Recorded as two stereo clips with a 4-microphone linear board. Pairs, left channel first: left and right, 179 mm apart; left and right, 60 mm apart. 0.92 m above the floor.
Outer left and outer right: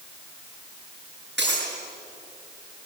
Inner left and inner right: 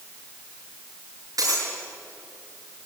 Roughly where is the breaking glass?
Right.